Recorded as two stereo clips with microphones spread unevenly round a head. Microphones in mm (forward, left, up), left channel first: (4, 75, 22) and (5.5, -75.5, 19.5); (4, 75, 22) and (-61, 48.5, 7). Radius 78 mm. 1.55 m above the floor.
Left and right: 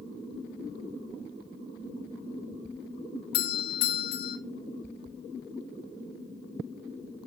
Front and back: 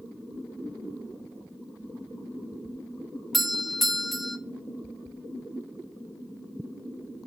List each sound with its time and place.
3.3 s a doorbell: 110° left, 2.0 m